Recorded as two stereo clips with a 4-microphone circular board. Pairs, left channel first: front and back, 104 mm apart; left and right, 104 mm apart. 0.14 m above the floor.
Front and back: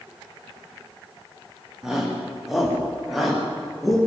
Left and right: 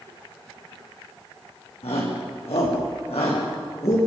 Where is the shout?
95° left, 8 m; by 4.0 s 90° left, 9 m.